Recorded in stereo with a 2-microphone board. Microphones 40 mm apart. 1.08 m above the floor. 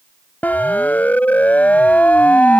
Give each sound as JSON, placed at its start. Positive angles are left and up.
{"t": 0.4, "sound": "a siren", "side_deg": 45}